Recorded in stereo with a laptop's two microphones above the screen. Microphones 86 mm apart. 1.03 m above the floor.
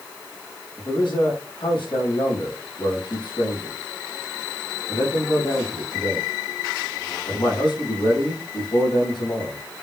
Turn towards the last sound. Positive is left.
turn(degrees=70)  # may be behind; listen again after turning